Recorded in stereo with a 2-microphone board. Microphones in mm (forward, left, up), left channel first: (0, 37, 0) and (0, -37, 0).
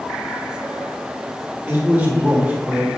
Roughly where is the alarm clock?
No alarm clock in this recording.